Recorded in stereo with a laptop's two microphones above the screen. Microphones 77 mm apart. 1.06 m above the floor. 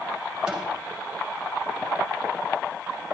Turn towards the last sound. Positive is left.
turn(degrees=-10)  # may be behind; listen again after turning